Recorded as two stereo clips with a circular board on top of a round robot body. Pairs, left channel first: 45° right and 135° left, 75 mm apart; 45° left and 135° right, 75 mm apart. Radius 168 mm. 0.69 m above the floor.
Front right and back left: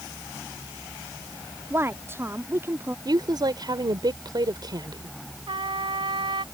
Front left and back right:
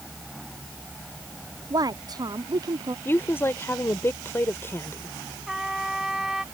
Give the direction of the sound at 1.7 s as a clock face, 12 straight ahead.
6 o'clock.